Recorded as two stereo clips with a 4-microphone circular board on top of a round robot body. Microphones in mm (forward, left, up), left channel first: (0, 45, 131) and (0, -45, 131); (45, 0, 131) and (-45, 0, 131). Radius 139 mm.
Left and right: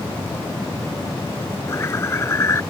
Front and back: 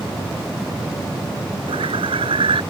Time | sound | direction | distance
1.7 | a bird | 155° left | ?